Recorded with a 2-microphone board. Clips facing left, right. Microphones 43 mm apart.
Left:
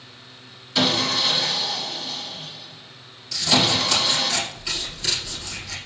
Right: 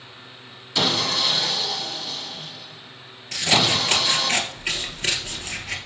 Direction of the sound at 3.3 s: 40° right (ahead or behind).